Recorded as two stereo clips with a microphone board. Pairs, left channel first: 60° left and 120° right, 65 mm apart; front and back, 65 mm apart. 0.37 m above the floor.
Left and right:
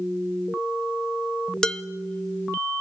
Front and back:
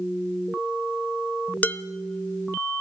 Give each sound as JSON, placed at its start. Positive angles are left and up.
{"t": 1.6, "sound": "dishes clattering", "azimuth_deg": -5, "distance_m": 0.6}